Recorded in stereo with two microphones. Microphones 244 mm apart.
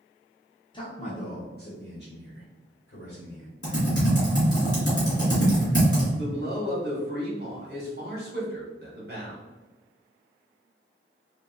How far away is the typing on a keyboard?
About 1.8 m.